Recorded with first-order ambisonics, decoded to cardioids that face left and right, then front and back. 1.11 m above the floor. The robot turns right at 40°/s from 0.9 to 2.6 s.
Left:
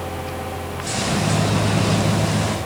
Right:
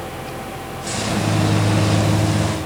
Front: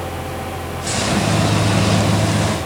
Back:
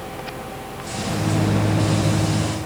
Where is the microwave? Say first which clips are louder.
Even, front 6 dB; 140° right, 3 m; by 2.5 s 80° right, 3 m.